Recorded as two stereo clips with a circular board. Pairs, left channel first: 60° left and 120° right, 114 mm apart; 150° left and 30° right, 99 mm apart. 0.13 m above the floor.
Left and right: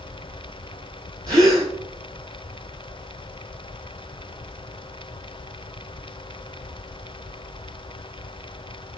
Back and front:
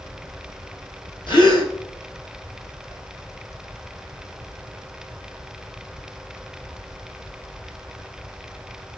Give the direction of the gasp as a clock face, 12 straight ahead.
6 o'clock.